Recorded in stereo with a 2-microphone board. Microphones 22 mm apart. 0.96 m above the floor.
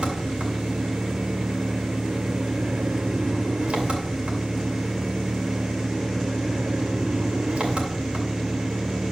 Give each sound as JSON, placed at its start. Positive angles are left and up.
{"t": 0.0, "sound": "an engine running", "side_deg": -85, "distance_m": 2.5}